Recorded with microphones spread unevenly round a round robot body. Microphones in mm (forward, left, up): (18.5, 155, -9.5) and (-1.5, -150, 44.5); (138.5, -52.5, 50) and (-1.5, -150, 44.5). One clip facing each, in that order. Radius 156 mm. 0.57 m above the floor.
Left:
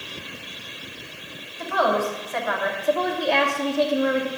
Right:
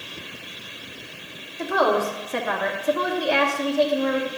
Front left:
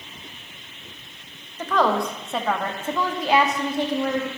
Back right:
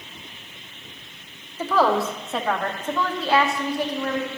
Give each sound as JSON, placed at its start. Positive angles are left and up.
{"t": 1.6, "sound": "a woman speaking", "azimuth_deg": -70, "distance_m": 1.6}